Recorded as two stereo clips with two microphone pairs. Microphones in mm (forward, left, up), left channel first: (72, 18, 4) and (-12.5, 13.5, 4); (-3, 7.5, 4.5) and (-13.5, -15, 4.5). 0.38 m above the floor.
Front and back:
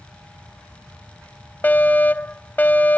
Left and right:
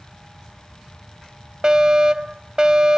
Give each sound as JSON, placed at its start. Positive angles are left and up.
{"t": 1.6, "sound": "a fire alarm", "azimuth_deg": -60}